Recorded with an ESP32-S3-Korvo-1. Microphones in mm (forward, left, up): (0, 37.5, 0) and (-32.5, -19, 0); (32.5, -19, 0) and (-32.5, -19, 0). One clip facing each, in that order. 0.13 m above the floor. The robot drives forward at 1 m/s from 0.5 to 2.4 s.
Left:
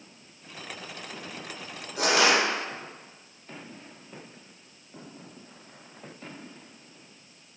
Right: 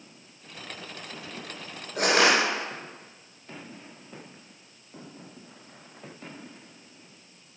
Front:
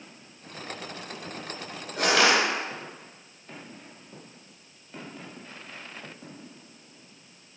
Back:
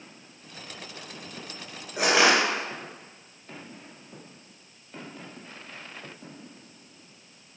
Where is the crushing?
105° right, 2 m; by 2.4 s 120° right, 2 m.